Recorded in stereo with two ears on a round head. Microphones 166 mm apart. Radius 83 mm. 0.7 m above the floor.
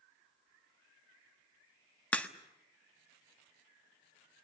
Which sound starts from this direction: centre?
A crack, at 2.1 s.